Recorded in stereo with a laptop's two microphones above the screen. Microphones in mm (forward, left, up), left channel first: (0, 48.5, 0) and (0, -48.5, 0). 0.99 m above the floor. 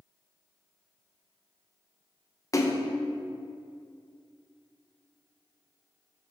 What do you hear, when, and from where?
2.5 s a splash: 35° left (ahead or behind), 0.6 m